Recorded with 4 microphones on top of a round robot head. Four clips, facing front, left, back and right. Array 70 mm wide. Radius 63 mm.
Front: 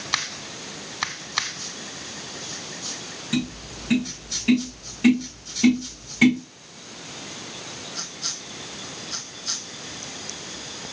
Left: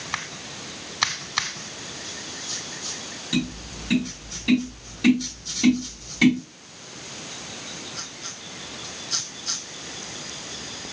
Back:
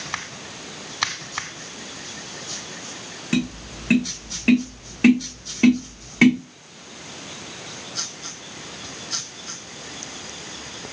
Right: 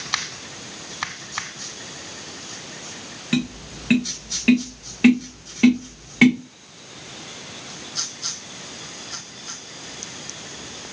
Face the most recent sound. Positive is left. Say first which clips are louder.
# right 3 dB, back 3 dB
turn(degrees=-130)